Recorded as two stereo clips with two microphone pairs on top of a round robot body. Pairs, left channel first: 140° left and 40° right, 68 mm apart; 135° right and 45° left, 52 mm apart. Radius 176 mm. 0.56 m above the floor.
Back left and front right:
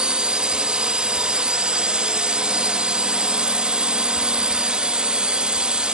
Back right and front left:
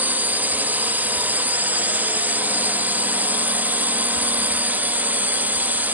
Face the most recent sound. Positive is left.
turn(degrees=30)